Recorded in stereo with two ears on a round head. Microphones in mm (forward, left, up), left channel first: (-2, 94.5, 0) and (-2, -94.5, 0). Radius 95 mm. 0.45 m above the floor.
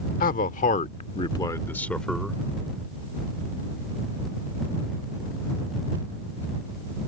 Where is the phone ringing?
I don't hear a phone ringing.